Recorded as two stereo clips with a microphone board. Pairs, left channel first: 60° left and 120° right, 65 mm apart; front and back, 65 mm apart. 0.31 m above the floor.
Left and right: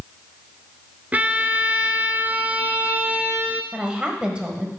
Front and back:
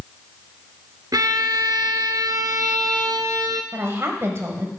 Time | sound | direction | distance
1.1 | a violin | 175° left | 0.6 m
3.7 | a woman speaking | 175° left | 1.2 m